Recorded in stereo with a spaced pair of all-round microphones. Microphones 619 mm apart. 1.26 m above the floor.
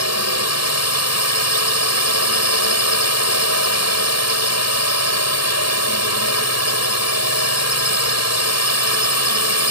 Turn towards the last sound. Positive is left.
turn(degrees=25)  # may be behind; listen again after turning